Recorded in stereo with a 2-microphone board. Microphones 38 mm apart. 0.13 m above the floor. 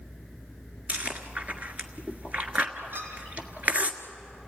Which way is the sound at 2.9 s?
70° right (ahead or behind).